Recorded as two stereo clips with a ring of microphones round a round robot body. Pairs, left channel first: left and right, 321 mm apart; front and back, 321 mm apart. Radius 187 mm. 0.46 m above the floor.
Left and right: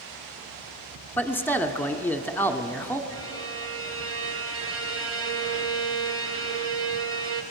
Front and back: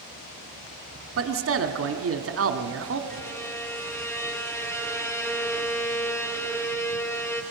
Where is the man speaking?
170° left, 1.4 m.